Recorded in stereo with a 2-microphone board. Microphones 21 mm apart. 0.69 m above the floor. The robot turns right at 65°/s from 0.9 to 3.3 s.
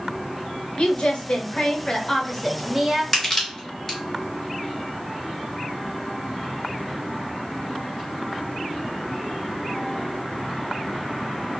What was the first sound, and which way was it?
A woman speaking, 75° left.